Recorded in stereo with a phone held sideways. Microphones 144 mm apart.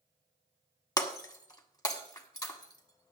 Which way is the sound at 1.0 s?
25° left (ahead or behind).